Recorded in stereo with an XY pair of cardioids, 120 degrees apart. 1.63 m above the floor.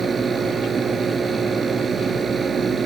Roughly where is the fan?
Ahead right.